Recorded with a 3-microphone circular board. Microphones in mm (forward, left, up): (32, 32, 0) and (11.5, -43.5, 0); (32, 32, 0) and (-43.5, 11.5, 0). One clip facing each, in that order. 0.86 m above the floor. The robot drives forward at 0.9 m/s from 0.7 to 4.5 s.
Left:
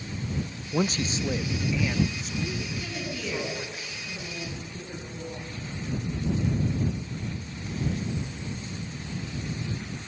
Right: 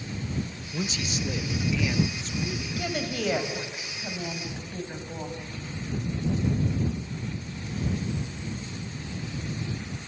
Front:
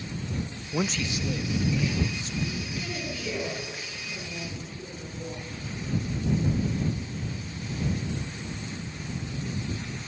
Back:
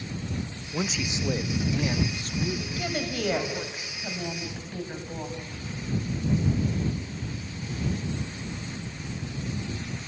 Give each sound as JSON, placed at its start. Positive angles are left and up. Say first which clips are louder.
{"t": 0.7, "sound": "a man speaking", "louder": "left 5 dB, front 1 dB", "azimuth_deg": 90, "distance_m": 0.5}
{"t": 2.8, "sound": "a woman speaking", "louder": "right 4 dB, back 5 dB", "azimuth_deg": -130, "distance_m": 5.0}